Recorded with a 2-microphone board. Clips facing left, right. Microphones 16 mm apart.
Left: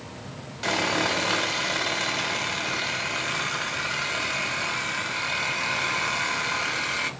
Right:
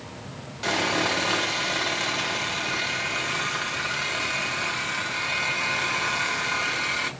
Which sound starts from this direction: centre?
Sawing, at 0.6 s.